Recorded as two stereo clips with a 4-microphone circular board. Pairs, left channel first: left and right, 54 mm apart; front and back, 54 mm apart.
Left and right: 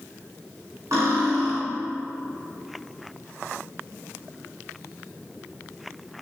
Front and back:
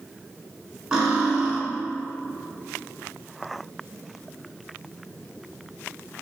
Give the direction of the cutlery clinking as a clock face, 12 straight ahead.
4 o'clock.